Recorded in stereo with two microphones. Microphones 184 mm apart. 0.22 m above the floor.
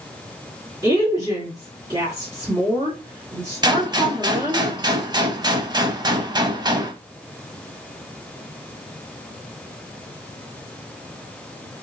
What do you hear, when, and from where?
0.8 s a woman speaking: 25° right (ahead or behind), 2 m
3.6 s a gunshot: 25° right (ahead or behind), 0.6 m